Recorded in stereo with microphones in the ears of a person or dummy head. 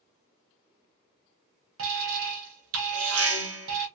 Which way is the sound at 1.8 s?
85° right.